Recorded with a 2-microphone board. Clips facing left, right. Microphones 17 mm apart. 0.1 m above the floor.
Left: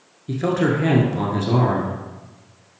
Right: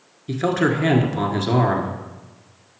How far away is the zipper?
I don't hear a zipper.